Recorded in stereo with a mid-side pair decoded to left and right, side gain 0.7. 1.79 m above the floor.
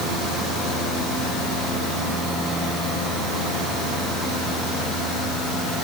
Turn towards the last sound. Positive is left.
No sound to turn to.